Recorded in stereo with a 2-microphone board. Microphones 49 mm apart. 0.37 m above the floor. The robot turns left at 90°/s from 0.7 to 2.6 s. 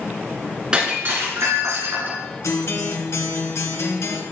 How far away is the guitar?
About 1.7 m.